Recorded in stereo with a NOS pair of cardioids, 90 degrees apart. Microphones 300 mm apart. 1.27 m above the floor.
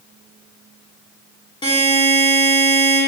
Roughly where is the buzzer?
Ahead.